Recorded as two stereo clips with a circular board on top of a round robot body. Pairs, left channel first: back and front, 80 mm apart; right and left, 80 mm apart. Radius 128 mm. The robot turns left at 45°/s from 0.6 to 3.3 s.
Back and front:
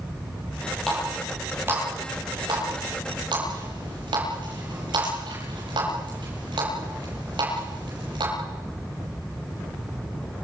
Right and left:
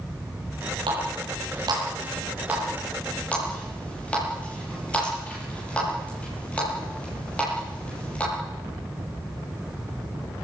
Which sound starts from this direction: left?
A running tap, at 0.9 s.